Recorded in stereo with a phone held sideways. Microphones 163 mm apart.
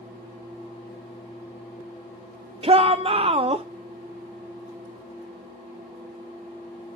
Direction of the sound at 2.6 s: 35° right (ahead or behind).